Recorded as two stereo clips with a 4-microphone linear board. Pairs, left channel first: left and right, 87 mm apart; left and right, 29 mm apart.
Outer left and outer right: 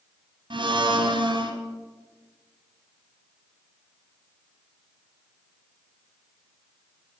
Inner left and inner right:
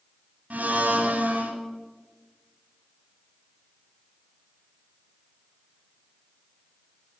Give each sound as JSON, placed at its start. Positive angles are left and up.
{"t": 0.5, "sound": "a blender", "side_deg": -70, "distance_m": 2.0}